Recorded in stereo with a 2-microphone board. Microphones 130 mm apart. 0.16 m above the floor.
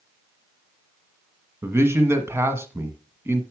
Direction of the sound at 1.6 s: 20° right (ahead or behind).